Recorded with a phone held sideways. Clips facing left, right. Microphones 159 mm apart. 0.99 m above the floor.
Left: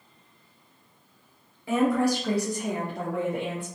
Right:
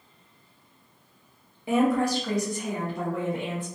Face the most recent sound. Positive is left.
turn(degrees=65)  # may be behind; listen again after turning